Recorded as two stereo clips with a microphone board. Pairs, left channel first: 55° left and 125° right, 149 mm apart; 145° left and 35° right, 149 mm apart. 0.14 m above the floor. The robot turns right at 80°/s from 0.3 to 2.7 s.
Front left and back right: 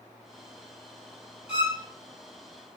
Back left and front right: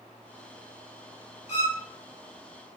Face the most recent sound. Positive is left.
turn(degrees=-100)